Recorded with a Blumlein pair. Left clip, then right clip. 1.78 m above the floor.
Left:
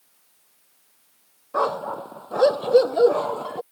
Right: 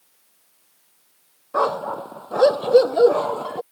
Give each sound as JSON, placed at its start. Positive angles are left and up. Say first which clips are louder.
{"t": 1.5, "sound": "a dog barking", "louder": "right 2 dB", "azimuth_deg": -5}